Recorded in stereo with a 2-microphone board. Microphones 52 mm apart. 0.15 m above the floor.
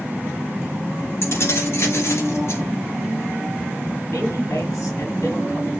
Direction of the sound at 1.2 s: 55° left (ahead or behind).